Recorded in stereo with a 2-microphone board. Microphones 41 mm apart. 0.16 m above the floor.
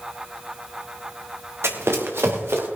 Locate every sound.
1.6 s running footsteps: 85° right, 2.5 m; by 2.7 s 70° right (ahead or behind), 3.5 m